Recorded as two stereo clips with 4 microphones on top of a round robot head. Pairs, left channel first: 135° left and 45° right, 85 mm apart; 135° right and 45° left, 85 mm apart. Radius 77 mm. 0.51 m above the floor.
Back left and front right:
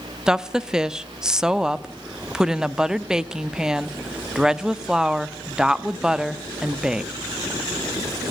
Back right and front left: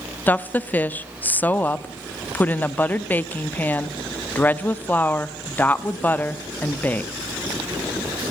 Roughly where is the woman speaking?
Right.